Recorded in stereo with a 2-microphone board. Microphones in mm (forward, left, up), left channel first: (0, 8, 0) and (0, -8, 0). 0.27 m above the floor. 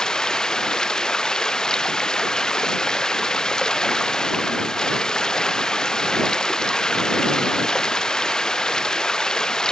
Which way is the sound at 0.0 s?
55° left (ahead or behind).